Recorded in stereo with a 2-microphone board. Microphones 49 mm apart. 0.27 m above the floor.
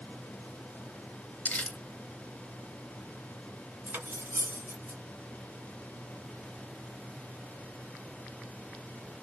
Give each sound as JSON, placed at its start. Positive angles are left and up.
{"t": 1.4, "sound": "crumpling", "side_deg": 25, "distance_m": 1.1}
{"t": 3.9, "sound": "cutlery clinking", "side_deg": -50, "distance_m": 1.4}